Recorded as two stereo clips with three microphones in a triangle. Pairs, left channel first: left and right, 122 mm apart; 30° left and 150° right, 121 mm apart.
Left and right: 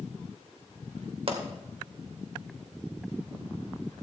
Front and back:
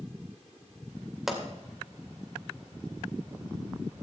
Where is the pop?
65° right, 2 m.